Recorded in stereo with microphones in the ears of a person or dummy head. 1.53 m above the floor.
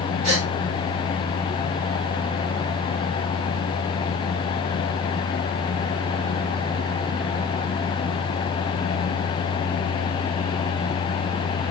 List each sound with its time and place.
0.2 s a gasp: 35° right (ahead or behind), 1.0 m